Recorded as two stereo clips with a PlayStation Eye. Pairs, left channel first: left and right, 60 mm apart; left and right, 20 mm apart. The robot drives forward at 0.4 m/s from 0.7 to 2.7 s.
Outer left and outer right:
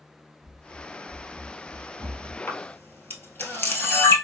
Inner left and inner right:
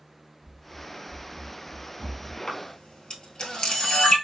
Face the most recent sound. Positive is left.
turn(degrees=30)  # may be behind; listen again after turning